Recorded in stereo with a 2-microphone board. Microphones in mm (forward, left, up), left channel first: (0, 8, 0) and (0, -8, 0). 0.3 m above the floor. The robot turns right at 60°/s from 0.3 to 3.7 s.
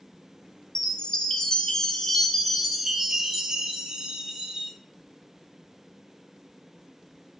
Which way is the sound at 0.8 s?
55° left.